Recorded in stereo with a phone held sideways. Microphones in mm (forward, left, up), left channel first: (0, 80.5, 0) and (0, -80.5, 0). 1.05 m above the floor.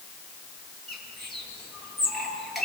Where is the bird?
Centre (ahead or behind), 6 m.